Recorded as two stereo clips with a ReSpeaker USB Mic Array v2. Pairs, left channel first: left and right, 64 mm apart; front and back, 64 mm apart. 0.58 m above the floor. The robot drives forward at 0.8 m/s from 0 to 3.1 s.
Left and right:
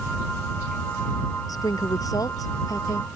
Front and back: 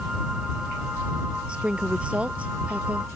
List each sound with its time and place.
1.5 s a woman speaking: 105° left; by 3.1 s 115° left